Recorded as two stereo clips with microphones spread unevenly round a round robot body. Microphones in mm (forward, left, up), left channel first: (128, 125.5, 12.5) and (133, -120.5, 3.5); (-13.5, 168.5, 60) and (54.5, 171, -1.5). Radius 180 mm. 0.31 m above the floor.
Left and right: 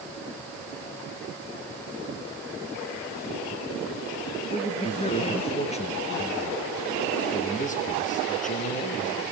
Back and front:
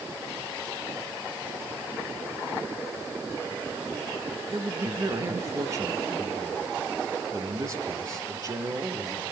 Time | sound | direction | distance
4.5 | a man speaking | 25° left | 3.5 m